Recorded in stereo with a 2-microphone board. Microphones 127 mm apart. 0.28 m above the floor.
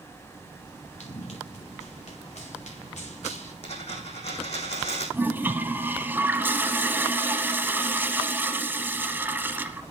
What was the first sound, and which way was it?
Running footsteps, 75° left (ahead or behind).